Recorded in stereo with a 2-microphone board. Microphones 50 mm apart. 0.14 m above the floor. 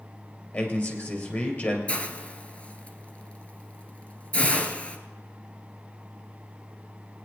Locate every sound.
0.5 s a man speaking: 40° left (ahead or behind), 3.5 m
1.9 s a hiss: 25° left (ahead or behind), 1.1 m